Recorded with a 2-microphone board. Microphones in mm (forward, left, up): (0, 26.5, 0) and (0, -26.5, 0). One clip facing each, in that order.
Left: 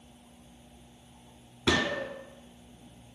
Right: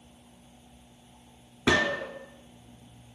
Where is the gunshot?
20° right (ahead or behind), 0.7 m.